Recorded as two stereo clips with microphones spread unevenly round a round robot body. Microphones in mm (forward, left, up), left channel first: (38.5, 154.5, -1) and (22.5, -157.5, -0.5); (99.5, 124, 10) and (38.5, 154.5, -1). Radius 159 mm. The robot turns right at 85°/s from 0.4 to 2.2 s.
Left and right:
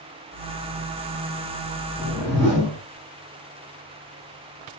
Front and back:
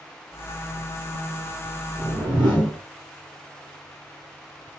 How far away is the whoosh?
About 4 m.